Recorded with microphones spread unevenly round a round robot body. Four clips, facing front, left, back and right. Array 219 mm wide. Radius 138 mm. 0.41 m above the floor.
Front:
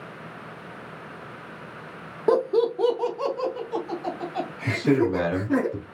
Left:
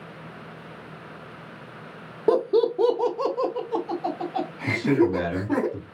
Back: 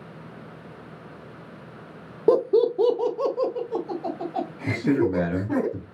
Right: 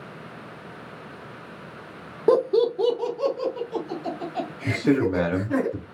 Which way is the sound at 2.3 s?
165° right.